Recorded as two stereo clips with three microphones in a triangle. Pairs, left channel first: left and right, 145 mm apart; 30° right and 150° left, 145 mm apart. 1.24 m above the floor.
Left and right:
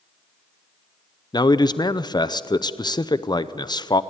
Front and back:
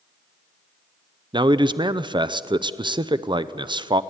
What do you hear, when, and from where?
1.3 s a man speaking: 125° left, 0.6 m